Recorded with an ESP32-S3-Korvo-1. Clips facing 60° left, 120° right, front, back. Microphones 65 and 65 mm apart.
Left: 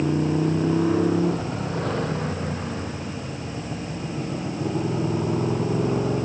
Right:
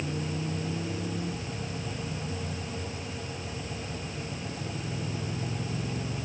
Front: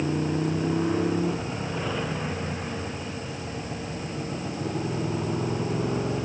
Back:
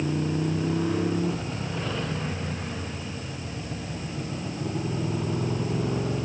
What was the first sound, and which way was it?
A motorcycle, 80° left.